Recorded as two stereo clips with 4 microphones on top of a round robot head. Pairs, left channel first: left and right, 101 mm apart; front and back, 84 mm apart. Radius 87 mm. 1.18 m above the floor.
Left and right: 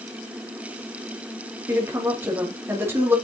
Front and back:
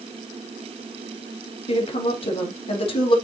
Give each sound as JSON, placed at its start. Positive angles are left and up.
{"t": 1.7, "sound": "a woman speaking", "azimuth_deg": -15, "distance_m": 2.0}